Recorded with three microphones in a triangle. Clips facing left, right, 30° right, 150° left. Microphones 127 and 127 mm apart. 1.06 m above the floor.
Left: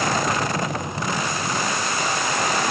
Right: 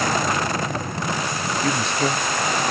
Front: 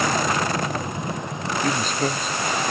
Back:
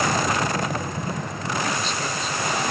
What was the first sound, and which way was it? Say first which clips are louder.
A man speaking: right 3 dB, front 7 dB; 75° right.